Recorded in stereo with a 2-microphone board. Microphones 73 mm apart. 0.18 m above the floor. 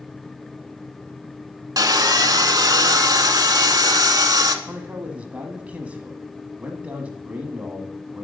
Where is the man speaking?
20° right (ahead or behind), 1.1 m.